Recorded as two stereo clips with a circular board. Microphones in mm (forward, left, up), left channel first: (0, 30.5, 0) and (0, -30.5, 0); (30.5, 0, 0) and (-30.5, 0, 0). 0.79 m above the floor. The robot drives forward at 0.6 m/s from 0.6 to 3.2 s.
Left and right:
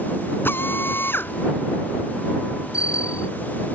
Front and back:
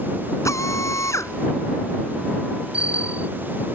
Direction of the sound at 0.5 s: 35° left.